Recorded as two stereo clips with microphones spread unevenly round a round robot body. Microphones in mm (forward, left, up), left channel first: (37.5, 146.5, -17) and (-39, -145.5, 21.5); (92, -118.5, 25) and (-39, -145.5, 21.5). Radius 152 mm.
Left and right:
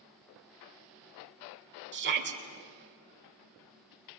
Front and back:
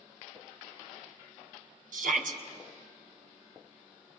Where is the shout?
160° right, 2.5 m.